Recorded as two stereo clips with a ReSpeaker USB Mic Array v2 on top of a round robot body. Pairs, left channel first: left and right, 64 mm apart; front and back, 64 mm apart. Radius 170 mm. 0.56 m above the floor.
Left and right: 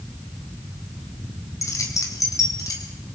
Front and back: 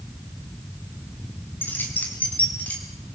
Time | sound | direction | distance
1.6 | keys jangling | 55° left | 3 m